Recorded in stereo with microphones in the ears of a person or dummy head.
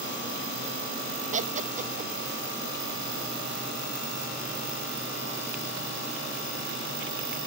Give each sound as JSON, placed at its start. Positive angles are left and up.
{"t": 1.3, "sound": "laughter", "side_deg": -40, "distance_m": 0.5}